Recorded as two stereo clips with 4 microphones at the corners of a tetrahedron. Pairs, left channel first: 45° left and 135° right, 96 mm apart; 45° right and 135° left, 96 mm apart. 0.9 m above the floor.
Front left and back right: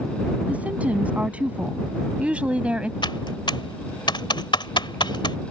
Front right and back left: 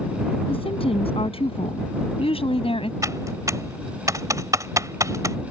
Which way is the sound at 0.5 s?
60° right.